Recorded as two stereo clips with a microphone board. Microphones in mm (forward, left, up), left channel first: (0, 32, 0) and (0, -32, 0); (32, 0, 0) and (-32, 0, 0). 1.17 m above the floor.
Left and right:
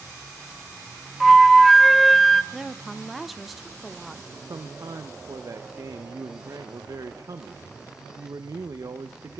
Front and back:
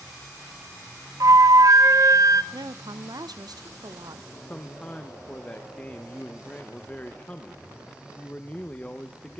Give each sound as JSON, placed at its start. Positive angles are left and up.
{"t": 1.2, "sound": "a flute", "azimuth_deg": 180, "distance_m": 0.5}
{"t": 2.5, "sound": "a woman speaking", "azimuth_deg": 180, "distance_m": 0.7}
{"t": 4.3, "sound": "a man speaking", "azimuth_deg": -65, "distance_m": 0.8}